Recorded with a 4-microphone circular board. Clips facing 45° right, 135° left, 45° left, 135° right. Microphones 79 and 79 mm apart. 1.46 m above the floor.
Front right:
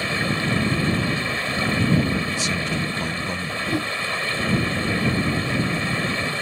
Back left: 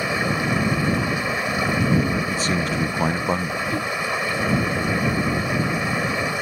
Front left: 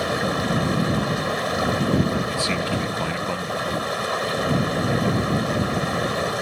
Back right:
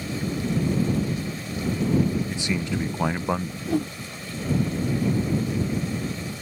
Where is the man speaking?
160° left.